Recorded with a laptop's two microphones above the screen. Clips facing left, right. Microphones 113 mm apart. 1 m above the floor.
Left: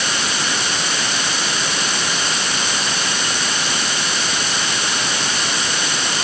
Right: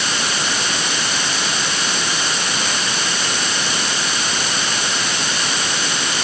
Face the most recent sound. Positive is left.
No sound to turn to.